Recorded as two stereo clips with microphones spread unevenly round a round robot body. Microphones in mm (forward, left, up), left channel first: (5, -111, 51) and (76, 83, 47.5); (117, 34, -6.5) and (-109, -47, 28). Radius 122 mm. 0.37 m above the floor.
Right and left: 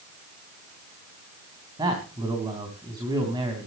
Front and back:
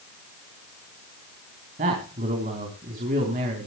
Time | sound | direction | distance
1.8 | a man speaking | 140° left | 3 m